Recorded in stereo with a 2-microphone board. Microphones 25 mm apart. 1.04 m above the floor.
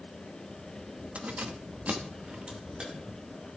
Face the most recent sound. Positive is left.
turn(degrees=-40)  # may be behind; listen again after turning